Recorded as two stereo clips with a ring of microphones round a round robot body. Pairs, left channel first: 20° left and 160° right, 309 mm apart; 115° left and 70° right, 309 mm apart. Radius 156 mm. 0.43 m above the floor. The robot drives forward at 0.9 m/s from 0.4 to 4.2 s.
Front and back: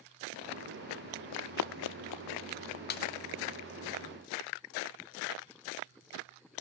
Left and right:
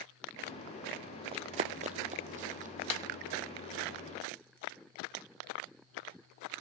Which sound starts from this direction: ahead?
Running footsteps, at 1.3 s.